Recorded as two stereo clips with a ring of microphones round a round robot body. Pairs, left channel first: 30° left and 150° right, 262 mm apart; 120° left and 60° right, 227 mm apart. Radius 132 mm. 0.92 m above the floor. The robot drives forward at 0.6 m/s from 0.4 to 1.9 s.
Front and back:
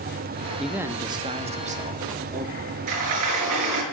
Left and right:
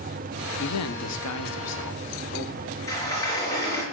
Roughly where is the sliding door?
Behind.